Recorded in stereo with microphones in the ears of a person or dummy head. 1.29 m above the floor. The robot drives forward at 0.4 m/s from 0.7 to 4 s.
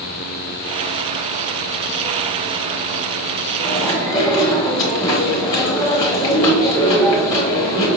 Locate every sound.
3.6 s chewing: 25° left (ahead or behind), 1.5 m